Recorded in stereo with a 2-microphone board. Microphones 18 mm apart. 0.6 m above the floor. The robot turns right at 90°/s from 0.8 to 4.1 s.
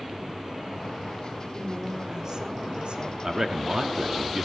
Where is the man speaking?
140° right, 0.9 m; by 4.4 s 65° right, 0.9 m.